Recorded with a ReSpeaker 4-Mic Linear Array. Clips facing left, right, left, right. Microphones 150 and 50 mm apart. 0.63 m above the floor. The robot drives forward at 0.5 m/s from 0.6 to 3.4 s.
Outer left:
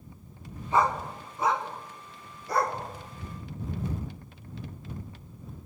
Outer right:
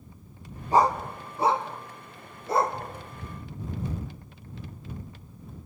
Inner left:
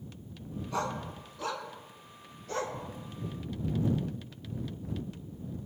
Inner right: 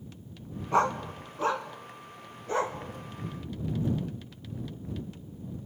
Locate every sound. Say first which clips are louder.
0.7 s a dog barking: outer right 3 dB, inner right 9 dB; 40° right (ahead or behind), 1.6 m; by 2.8 s 25° right (ahead or behind), 2.5 m